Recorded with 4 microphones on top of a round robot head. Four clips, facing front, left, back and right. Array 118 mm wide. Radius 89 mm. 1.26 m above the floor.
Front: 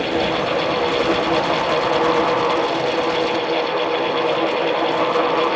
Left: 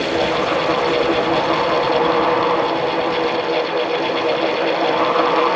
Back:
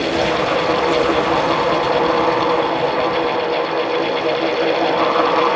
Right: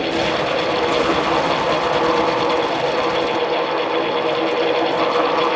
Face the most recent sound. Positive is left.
No sound to turn to.